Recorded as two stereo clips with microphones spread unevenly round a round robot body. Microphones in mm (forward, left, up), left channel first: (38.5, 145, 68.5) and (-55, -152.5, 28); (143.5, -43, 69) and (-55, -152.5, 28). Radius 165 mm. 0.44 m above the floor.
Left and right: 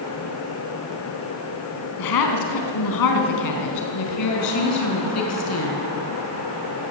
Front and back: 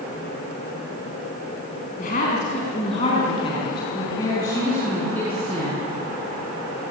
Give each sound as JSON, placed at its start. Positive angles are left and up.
{"t": 2.0, "sound": "a woman speaking", "azimuth_deg": 95, "distance_m": 4.5}